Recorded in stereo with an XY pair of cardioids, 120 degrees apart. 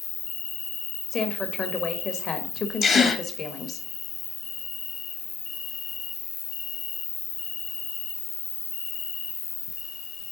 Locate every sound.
0.0 s an insect: 65° left, 0.9 m
1.1 s a woman speaking: 45° left, 1.3 m
2.8 s a gasp: 45° left, 1.5 m